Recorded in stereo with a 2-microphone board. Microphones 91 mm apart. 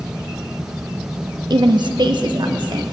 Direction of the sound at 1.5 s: 50° right (ahead or behind).